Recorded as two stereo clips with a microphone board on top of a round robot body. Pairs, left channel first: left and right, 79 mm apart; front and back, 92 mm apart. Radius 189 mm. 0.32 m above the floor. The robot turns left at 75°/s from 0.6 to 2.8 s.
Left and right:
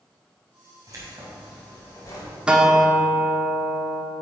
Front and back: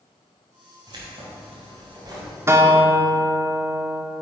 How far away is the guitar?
About 1.4 m.